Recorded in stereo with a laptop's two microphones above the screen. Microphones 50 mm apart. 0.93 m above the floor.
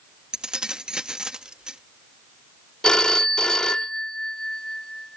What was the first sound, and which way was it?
Keys jangling, 15° right (ahead or behind).